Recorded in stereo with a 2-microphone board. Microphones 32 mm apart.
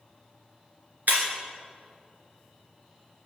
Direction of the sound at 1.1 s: 80° right.